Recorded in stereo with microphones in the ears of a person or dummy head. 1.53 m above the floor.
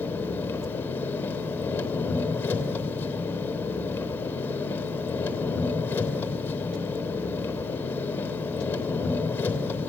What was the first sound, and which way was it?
An engine running, 5° left (ahead or behind).